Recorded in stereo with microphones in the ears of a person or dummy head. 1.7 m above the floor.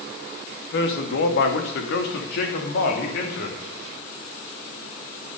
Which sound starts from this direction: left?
A man speaking, at 0.7 s.